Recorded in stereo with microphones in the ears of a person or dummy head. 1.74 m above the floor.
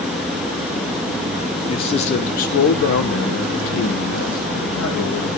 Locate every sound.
1.7 s a man speaking: 25° left (ahead or behind), 1.0 m; by 5.3 s 75° left (ahead or behind), 1.9 m